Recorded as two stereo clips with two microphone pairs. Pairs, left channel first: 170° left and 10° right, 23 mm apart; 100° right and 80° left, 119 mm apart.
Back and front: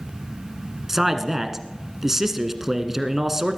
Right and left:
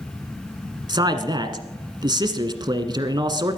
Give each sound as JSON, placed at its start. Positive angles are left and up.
{"t": 0.9, "sound": "a man speaking", "azimuth_deg": 60, "distance_m": 1.3}